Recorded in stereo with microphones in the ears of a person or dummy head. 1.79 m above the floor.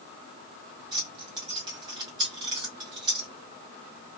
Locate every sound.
0.9 s keys jangling: 30° right (ahead or behind), 1.0 m